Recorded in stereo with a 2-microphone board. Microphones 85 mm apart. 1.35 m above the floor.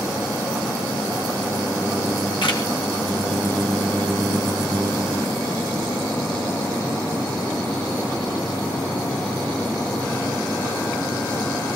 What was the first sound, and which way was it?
A camera shutter, 70° left (ahead or behind).